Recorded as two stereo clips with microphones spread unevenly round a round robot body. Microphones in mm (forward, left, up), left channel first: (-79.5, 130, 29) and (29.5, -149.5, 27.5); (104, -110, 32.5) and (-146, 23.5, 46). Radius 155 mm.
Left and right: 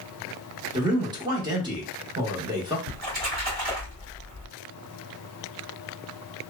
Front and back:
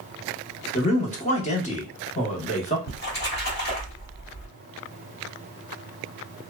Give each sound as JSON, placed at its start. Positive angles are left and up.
{"t": 0.7, "sound": "a man speaking", "azimuth_deg": -10, "distance_m": 0.8}
{"t": 2.9, "sound": "a splash", "azimuth_deg": -45, "distance_m": 1.8}